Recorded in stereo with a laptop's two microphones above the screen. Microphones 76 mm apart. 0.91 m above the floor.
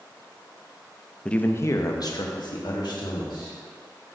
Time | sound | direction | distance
1.2 | a man speaking | 10° left (ahead or behind) | 0.6 m